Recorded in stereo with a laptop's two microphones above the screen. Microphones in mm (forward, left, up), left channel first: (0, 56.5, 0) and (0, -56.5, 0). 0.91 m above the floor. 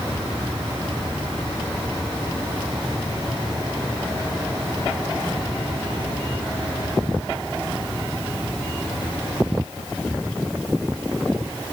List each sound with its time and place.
Only background noise.